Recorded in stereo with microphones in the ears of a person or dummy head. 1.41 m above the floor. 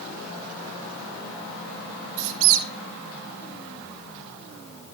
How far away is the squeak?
About 1.5 m.